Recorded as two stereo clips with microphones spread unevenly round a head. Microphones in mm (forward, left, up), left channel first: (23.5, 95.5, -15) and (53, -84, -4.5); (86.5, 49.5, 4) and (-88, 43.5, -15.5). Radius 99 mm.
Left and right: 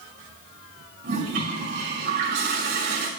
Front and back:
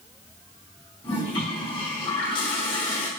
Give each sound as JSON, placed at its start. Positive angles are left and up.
{"t": 1.0, "sound": "a toilet flushing", "azimuth_deg": -65, "distance_m": 2.5}